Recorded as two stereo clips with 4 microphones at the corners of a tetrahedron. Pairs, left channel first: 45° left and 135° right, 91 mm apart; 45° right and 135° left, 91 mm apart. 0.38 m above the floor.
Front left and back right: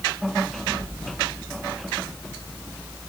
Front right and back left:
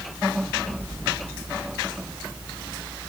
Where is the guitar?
I don't hear a guitar.